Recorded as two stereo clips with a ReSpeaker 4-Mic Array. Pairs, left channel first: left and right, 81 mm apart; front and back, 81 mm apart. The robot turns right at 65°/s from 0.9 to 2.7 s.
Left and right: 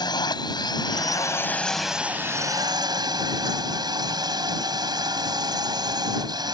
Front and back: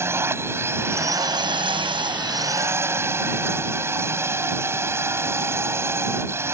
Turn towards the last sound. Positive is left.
turn(degrees=-120)